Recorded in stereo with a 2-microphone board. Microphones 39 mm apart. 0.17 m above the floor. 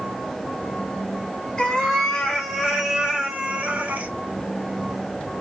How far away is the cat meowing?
About 1.3 m.